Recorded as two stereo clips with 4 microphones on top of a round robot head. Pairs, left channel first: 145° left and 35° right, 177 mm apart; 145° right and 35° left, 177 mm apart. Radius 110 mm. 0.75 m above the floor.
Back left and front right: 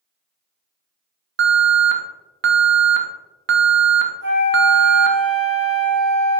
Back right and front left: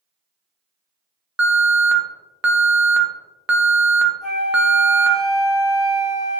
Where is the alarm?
45° right, 0.6 m.